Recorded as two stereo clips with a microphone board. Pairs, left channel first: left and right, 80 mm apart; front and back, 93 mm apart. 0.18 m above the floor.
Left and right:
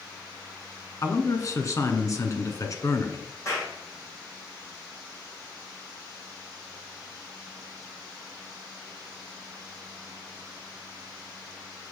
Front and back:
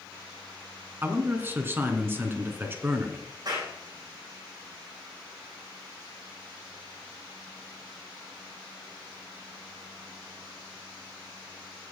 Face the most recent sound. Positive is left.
turn(degrees=140)